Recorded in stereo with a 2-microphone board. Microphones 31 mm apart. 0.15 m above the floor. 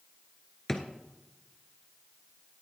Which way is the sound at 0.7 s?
15° left (ahead or behind).